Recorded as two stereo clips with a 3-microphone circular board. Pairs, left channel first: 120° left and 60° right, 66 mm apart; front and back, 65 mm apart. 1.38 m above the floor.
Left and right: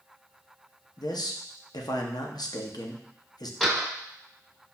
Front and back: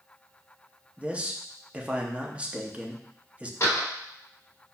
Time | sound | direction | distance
1.0 | a man speaking | 110° left | 0.6 m
3.6 | a door slam | 30° left | 0.9 m